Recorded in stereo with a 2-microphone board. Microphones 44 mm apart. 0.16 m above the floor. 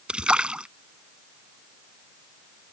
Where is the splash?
25° right (ahead or behind).